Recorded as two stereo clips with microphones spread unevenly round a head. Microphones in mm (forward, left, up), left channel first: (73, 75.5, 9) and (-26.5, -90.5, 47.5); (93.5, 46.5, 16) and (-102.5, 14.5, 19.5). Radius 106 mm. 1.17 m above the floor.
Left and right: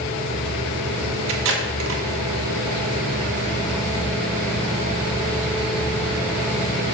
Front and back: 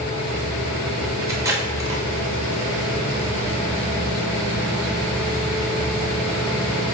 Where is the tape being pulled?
95° right, 1.2 m.